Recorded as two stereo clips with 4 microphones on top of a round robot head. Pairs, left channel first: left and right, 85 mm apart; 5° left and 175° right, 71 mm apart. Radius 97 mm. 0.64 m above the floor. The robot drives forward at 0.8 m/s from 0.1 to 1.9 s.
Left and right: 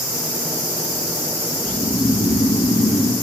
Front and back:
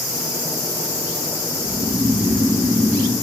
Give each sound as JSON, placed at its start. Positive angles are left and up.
{"t": 1.6, "sound": "snoring", "azimuth_deg": 145, "distance_m": 0.9}